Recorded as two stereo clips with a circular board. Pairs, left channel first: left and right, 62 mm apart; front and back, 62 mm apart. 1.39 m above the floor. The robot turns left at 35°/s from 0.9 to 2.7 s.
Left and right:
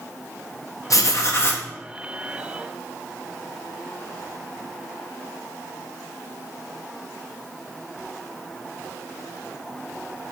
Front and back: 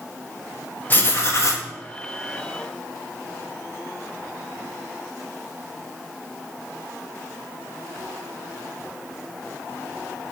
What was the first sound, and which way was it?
Writing, 60° left.